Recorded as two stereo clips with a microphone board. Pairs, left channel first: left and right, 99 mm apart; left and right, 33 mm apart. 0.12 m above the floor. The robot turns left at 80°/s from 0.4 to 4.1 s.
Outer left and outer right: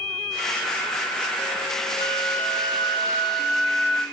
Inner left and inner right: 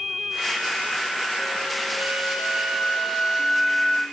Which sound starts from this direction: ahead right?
A flute, at 2.0 s.